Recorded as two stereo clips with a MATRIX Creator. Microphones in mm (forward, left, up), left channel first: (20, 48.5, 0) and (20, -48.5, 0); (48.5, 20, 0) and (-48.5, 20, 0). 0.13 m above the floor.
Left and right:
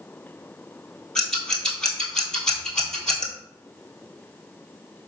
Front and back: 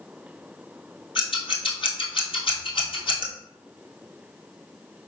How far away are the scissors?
About 1.3 m.